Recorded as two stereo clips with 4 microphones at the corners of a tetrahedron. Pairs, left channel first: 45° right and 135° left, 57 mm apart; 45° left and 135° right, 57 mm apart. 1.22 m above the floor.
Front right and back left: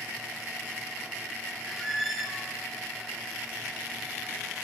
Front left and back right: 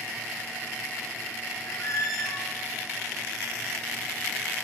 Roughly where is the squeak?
Ahead left.